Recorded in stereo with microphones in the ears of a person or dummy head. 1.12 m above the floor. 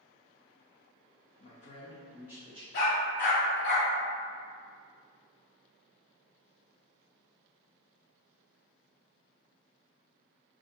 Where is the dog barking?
60° left (ahead or behind), 1.0 m.